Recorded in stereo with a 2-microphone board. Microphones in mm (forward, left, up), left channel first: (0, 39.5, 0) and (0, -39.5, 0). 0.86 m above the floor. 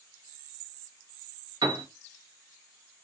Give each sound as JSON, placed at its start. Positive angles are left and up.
{"t": 1.6, "sound": "a piano", "side_deg": -70, "distance_m": 0.9}